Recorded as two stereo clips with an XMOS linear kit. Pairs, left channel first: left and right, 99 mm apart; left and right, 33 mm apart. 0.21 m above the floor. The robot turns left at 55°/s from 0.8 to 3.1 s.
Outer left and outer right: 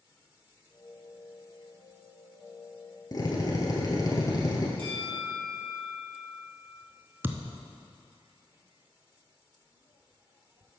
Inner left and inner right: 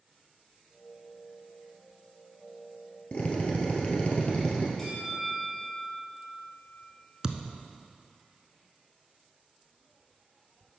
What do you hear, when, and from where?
3.1 s a drill: 40° left (ahead or behind), 1.7 m
4.8 s a bell: 20° left (ahead or behind), 3.5 m
7.2 s a thud: 20° right (ahead or behind), 0.6 m